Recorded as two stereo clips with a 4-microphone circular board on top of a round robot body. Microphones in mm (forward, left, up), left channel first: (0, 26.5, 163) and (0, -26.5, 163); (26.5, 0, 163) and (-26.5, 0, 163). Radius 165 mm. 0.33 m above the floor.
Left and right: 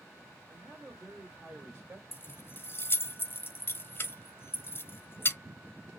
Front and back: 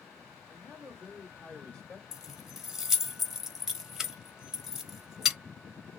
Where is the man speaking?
30° right, 1.7 m; by 2.0 s 50° right, 2.5 m.